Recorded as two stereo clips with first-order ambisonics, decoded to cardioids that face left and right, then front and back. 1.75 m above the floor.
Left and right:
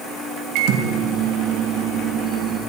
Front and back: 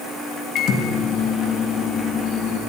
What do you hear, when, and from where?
0.6 s a microwave: 55° right, 3 m